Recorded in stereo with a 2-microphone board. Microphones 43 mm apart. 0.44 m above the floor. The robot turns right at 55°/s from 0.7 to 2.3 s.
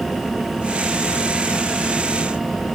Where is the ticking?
I don't hear ticking.